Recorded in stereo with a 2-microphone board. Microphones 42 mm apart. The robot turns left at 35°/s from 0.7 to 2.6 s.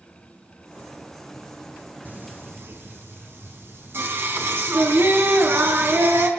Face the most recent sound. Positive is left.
turn(degrees=-65)  # may be behind; listen again after turning